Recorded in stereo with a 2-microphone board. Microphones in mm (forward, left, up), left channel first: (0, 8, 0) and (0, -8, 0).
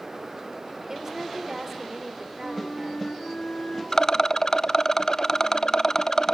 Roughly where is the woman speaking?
Right.